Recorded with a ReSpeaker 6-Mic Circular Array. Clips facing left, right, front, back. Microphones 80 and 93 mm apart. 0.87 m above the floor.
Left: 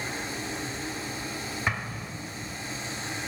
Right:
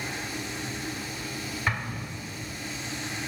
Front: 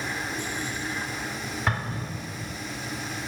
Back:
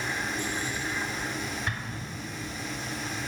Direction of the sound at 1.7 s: 10° left.